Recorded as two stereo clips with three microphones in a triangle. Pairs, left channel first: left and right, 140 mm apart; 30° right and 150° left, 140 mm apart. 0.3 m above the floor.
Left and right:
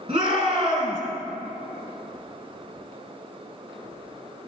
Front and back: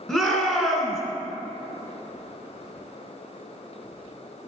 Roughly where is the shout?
Behind right.